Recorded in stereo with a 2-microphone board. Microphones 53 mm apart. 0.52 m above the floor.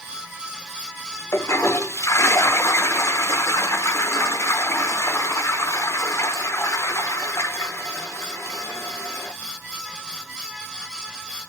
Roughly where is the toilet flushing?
Left.